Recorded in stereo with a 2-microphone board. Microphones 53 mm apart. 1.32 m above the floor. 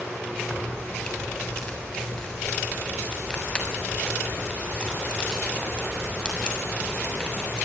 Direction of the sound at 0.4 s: 20° left (ahead or behind).